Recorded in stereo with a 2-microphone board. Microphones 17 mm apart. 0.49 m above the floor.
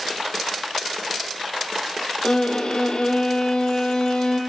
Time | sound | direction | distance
2.2 | a violin | 60° left (ahead or behind) | 3.5 m